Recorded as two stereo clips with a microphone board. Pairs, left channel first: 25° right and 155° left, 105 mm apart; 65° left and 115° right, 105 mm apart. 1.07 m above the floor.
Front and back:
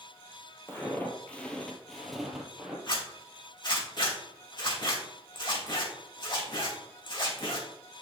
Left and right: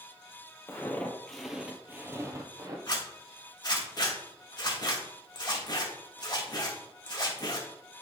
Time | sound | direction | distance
0.7 | footsteps | 20° left | 1.2 m
2.9 | a zipper | 20° left | 1.8 m